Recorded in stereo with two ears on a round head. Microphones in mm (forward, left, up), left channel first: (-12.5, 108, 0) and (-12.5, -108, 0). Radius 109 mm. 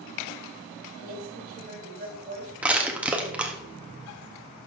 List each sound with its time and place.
1.0 s a woman speaking: 40° right (ahead or behind), 4 m
2.6 s crushing: 5° right (ahead or behind), 1.1 m